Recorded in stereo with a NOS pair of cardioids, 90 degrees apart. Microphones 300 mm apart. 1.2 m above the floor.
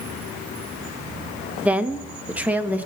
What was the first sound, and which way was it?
A woman speaking, 5° right.